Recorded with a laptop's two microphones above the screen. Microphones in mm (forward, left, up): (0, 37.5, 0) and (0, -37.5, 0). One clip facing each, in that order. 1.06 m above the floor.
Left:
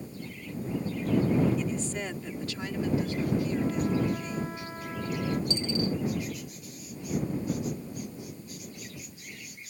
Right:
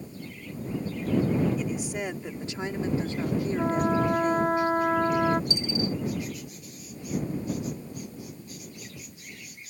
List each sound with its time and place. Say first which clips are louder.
1.6 s a woman speaking: right 1 dB; 10° right (ahead or behind); by 4.6 s 60° right (ahead or behind)
3.6 s a trumpet: right 4 dB; 60° right (ahead or behind)
5.5 s a dropped coin: even; 10° right (ahead or behind)